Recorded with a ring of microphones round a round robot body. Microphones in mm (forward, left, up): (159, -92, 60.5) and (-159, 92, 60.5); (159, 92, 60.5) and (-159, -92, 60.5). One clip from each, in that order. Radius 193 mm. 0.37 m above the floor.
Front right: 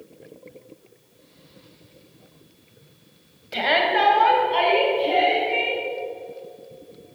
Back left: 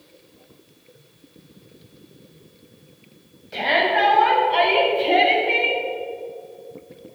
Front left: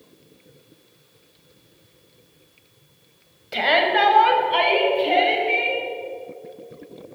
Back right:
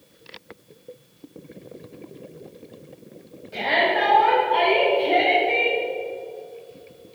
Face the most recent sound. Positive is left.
turn(degrees=95)